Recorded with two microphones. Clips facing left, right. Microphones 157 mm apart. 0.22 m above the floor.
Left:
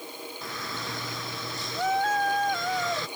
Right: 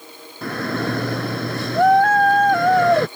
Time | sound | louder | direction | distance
0.4 | a shout | right 16 dB | 70° right (ahead or behind) | ?